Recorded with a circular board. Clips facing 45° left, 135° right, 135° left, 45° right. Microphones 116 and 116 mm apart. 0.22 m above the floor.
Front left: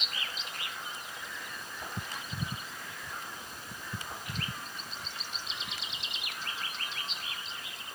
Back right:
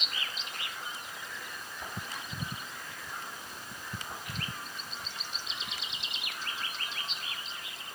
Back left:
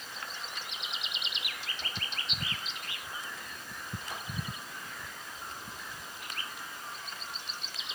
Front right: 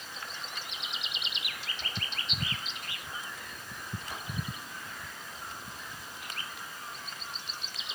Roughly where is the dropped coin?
I don't hear a dropped coin.